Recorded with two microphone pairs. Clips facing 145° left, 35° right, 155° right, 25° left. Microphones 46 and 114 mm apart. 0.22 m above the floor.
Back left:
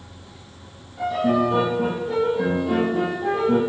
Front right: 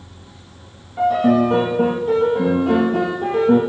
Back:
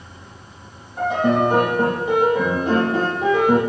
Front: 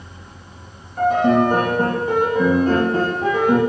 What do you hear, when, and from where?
1.0 s a piano: 80° right, 4 m